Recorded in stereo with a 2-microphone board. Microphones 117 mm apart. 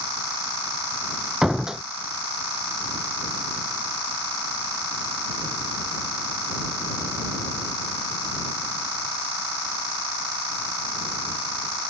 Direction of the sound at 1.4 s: 5° right (ahead or behind).